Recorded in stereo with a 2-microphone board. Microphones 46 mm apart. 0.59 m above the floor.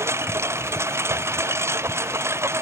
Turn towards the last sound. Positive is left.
turn(degrees=-75)  # may be behind; listen again after turning